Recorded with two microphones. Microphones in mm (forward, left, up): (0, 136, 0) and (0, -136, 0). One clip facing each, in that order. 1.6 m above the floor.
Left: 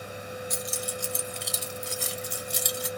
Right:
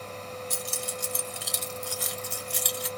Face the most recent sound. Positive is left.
turn(degrees=50)  # may be behind; listen again after turning